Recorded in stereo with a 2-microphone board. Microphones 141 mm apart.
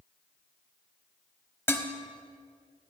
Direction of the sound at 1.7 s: 15° left (ahead or behind).